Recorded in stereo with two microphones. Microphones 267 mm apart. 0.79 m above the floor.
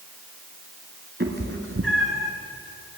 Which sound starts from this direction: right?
A cat meowing, at 1.2 s.